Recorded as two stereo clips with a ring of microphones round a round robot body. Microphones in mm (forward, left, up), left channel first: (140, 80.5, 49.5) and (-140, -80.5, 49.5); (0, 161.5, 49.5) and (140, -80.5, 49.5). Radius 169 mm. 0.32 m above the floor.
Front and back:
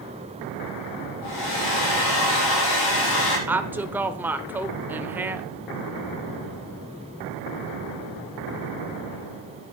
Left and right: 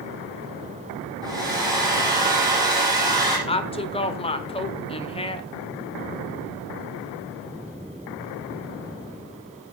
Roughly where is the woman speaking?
Behind left.